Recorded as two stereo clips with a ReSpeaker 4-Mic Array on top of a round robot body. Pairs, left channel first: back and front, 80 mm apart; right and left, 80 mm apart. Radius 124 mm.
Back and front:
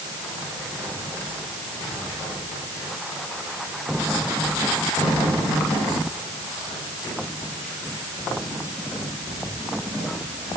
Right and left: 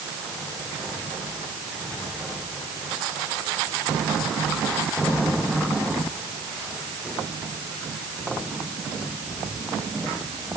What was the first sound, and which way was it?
Only background noise.